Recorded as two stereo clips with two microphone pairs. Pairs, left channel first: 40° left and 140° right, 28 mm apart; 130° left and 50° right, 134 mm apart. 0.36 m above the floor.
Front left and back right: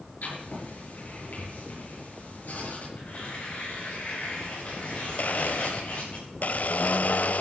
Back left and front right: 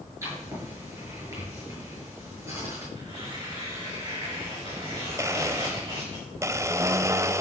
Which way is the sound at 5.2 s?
20° left.